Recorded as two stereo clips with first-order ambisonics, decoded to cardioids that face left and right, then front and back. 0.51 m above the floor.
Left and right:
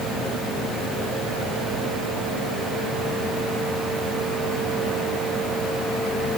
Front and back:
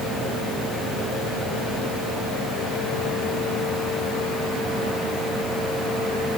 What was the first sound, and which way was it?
Only background noise.